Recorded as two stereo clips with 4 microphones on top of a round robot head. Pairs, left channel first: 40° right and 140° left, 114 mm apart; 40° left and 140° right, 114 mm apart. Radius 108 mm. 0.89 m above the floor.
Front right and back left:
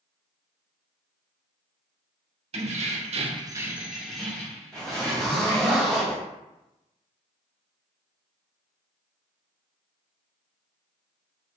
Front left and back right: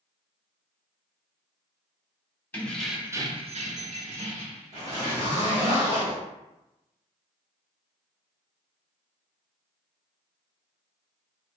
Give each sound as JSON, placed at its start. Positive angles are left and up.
{"t": 2.5, "sound": "keys jangling", "azimuth_deg": 115, "distance_m": 0.8}
{"t": 4.7, "sound": "a zipper", "azimuth_deg": -125, "distance_m": 1.8}